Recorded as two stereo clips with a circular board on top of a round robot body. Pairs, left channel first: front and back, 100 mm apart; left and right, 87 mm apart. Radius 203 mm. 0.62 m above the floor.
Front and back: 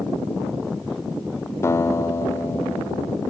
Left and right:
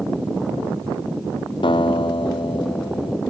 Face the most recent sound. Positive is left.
turn(degrees=65)